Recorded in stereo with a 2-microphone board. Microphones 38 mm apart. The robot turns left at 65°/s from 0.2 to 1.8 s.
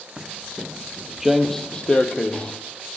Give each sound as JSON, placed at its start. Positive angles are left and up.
{"t": 0.2, "sound": "footsteps", "side_deg": -20, "distance_m": 0.9}